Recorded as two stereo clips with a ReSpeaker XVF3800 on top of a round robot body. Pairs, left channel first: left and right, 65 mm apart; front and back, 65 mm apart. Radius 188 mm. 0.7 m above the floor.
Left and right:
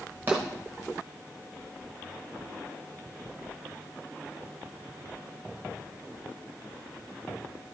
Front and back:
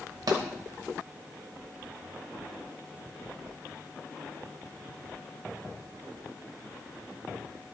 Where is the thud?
150° right, 1.2 m.